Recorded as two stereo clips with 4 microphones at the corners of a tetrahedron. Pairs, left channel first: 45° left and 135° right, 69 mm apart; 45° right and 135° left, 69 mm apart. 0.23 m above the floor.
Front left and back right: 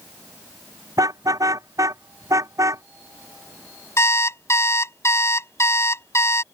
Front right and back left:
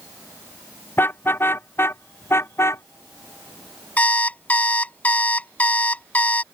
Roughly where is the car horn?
Right.